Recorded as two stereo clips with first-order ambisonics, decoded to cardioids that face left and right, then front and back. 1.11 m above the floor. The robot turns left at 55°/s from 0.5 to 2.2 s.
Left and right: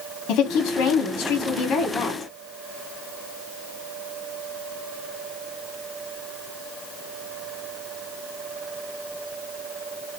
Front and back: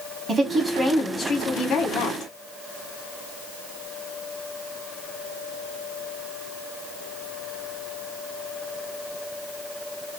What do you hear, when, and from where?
0.3 s a woman speaking: 110° left, 1.0 m; by 2.3 s 20° left, 1.0 m